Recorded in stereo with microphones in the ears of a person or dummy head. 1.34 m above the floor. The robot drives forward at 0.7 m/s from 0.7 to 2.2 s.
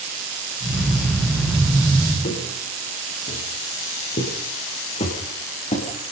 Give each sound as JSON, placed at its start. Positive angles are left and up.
{"t": 2.2, "sound": "footsteps", "side_deg": 45, "distance_m": 9.0}